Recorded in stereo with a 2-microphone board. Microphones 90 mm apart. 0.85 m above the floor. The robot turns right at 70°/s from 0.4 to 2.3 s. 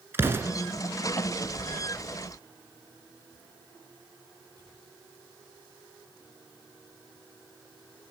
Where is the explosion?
25° right (ahead or behind), 1.6 m; by 0.5 s 35° right (ahead or behind), 1.6 m.